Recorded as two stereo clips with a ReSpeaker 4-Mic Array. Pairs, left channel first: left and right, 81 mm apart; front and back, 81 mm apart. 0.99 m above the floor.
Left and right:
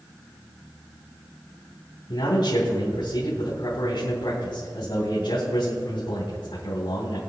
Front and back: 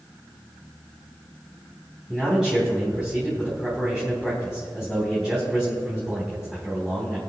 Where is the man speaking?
95° left, 3.5 m.